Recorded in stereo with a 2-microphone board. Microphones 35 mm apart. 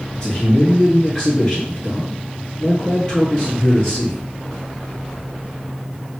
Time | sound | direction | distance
0.1 | a man speaking | 20° left (ahead or behind) | 1.6 m